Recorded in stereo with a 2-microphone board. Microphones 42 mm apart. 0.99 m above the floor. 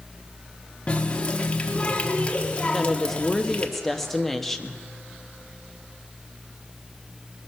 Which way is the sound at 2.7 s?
5° left (ahead or behind).